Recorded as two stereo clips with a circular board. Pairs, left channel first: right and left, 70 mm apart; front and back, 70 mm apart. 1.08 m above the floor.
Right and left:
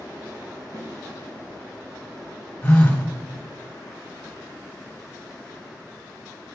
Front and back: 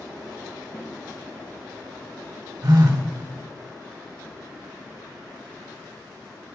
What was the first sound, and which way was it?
A snare drum, 35° left.